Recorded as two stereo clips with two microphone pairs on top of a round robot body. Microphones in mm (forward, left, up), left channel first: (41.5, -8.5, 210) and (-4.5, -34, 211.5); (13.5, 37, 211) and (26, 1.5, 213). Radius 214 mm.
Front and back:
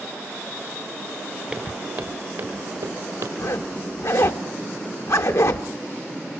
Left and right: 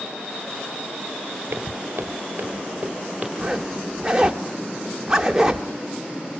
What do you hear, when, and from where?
1.5 s footsteps: 95° right, 1.0 m; by 3.3 s 145° right, 1.5 m
3.4 s a zipper: 5° left, 0.8 m